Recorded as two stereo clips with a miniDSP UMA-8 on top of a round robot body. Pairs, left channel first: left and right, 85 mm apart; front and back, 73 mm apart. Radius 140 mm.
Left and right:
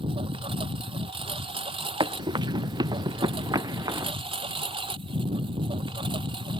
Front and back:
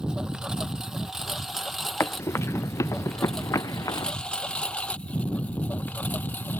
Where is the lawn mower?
100° right; by 6.6 s 65° right.